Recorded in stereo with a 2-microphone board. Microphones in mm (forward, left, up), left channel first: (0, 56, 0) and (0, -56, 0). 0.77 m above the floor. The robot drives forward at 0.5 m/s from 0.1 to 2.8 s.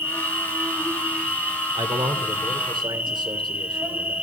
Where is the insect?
20° right (ahead or behind), 2.0 m; by 4.2 s 10° right (ahead or behind), 3 m.